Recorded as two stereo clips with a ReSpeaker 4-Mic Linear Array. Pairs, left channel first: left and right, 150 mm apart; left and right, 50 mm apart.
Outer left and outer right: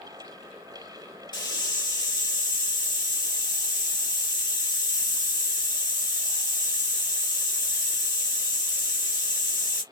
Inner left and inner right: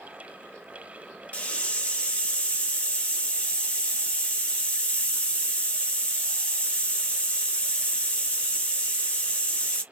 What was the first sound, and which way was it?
A hiss, 30° left (ahead or behind).